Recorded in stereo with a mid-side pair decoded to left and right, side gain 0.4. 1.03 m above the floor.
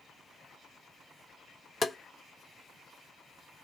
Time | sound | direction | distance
1.8 | tapping | 30° left | 0.5 m